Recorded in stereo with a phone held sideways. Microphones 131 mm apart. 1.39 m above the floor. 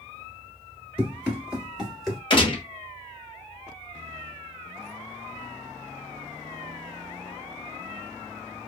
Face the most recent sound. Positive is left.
turn(degrees=40)  # may be behind; listen again after turning